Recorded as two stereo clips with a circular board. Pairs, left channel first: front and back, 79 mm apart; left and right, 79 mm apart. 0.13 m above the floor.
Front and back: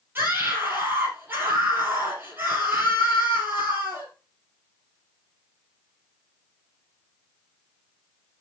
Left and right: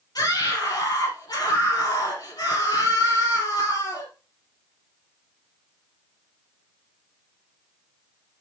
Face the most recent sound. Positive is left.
turn(degrees=120)